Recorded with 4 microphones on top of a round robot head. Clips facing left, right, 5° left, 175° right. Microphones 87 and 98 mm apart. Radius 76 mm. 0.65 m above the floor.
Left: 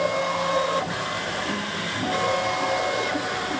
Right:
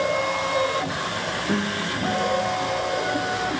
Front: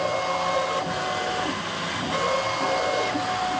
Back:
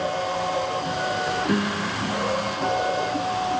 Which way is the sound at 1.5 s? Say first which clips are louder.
Right 4 dB, back 5 dB; 155° right.